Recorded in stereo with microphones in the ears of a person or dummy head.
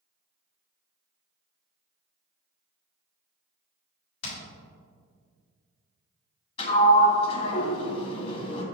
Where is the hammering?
80° left, 2 m.